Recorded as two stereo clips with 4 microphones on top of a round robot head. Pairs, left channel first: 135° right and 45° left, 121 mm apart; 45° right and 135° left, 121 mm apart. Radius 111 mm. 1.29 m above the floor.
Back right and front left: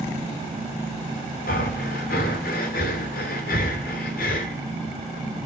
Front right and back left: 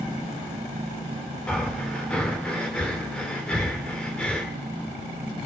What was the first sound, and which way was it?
Breathing, 130° right.